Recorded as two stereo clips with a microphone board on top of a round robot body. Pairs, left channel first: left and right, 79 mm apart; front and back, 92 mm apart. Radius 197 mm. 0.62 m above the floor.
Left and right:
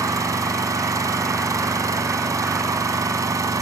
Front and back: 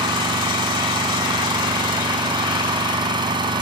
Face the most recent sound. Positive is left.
turn(degrees=-140)